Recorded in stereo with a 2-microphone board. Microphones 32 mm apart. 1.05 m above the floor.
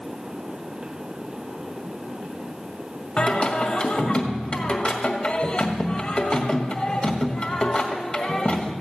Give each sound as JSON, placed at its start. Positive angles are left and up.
{"t": 3.2, "sound": "singing", "side_deg": 30, "distance_m": 1.9}